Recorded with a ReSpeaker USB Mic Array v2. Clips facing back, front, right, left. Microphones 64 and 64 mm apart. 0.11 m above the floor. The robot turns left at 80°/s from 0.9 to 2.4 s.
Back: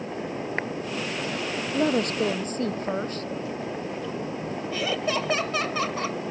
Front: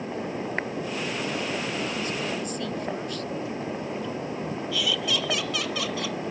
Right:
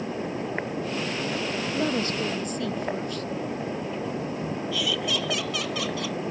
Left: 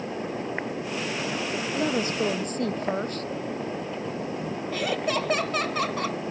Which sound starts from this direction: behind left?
Laughter, at 4.7 s.